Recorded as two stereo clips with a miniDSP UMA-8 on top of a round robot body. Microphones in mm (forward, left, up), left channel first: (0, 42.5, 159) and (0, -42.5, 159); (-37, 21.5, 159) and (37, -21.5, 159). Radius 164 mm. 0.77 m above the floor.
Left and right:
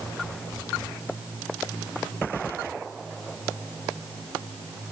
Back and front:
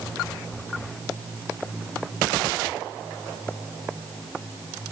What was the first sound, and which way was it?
Only background noise.